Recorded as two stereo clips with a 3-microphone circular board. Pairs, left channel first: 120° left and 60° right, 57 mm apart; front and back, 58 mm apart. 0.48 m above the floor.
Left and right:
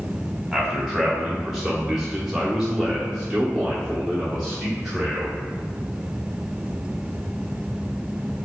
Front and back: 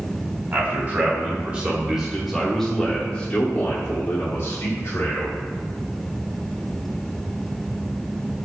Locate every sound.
0.5 s a man speaking: 150° right, 1.4 m; by 5.3 s 25° left, 1.9 m